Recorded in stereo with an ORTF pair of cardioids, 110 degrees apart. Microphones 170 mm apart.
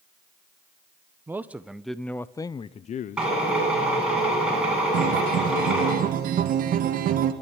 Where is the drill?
5° right, 9.5 m.